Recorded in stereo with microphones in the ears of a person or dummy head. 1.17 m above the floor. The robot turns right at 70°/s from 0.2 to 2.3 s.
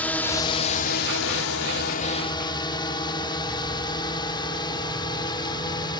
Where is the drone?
10° left (ahead or behind); by 6.0 s 25° left (ahead or behind).